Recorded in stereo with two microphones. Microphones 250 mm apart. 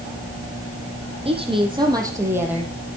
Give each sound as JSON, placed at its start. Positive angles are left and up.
{"t": 1.2, "sound": "a woman speaking", "side_deg": -25, "distance_m": 5.5}